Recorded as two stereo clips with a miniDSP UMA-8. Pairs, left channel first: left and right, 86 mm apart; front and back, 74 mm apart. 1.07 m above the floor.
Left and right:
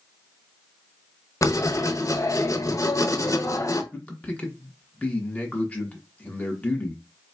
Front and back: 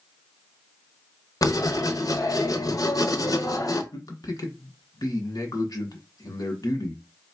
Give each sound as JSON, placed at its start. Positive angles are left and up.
{"t": 1.4, "sound": "writing", "azimuth_deg": 40, "distance_m": 0.8}
{"t": 3.9, "sound": "a man speaking", "azimuth_deg": 20, "distance_m": 1.2}